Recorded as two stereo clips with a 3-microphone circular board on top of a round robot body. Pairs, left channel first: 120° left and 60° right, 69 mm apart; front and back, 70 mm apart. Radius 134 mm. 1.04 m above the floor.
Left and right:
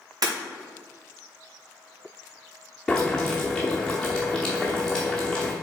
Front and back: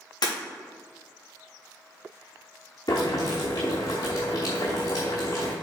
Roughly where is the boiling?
Ahead left.